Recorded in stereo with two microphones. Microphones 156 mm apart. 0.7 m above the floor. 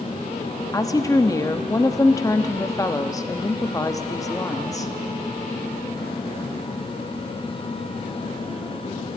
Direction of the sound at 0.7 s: 20° left (ahead or behind).